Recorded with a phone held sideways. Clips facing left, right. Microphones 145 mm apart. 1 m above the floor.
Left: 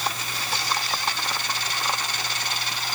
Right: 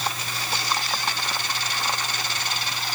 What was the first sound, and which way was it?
Only background noise.